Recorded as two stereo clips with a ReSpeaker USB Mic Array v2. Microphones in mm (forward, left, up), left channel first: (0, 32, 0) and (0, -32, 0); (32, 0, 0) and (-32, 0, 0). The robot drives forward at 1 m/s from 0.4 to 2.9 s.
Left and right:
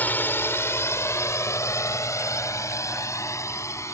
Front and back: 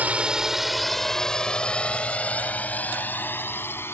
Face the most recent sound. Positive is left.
turn(degrees=50)